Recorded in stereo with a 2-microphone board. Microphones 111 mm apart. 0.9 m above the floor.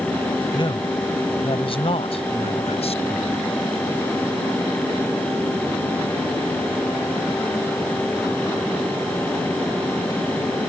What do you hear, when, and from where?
0.5 s a man speaking: 50° left (ahead or behind); by 3.4 s 70° left (ahead or behind)